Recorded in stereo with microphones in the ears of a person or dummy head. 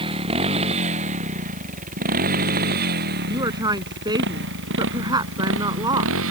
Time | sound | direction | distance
0.0 | a motorcycle | 30° right (ahead or behind) | ?
3.3 | a woman speaking | 20° right (ahead or behind) | ?